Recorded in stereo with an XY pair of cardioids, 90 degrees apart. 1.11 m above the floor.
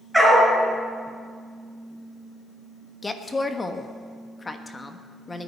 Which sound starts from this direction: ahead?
A dog barking, at 0.1 s.